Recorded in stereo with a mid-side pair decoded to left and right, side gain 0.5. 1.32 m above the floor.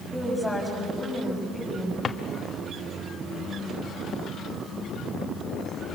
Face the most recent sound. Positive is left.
turn(degrees=35)